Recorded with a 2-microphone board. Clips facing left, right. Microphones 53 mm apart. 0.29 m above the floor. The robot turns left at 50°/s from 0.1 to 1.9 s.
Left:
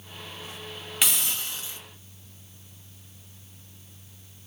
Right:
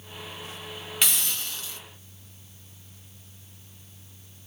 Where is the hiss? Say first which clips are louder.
Left 1 dB; 170° left, 1.0 m; by 1.8 s 130° left, 1.0 m.